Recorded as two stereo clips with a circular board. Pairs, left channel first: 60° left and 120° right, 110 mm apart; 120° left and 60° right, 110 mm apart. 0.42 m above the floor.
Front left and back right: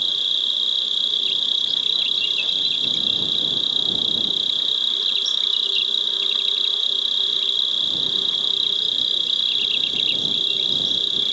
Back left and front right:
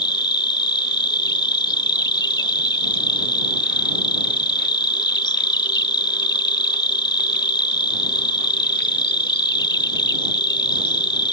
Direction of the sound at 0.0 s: 150° left.